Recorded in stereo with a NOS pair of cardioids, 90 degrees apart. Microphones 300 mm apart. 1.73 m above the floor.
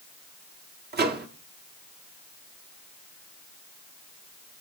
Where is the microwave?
35° right, 1.0 m.